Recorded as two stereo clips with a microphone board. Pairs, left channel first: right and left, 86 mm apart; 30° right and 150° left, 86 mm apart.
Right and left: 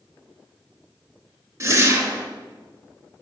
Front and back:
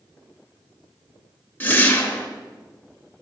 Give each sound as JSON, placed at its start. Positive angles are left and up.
{"t": 1.6, "sound": "a whoosh", "azimuth_deg": 35, "distance_m": 0.7}